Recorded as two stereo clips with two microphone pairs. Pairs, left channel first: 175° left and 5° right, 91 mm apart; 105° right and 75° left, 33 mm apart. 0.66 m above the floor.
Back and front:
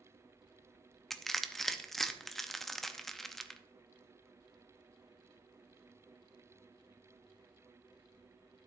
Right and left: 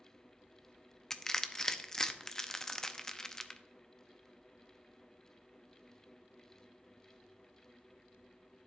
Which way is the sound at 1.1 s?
105° right.